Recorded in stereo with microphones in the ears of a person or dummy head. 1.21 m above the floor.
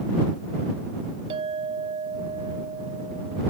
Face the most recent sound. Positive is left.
turn(degrees=-30)  # may be behind; listen again after turning